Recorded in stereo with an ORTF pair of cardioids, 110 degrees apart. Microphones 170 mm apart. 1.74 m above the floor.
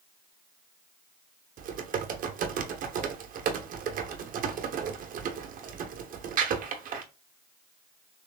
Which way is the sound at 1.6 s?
60° right.